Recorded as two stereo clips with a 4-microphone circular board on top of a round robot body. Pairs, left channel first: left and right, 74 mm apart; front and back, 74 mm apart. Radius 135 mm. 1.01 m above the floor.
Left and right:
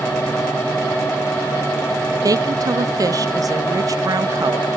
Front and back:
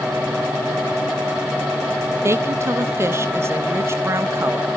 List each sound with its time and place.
2.2 s a woman speaking: 125° right, 1.2 m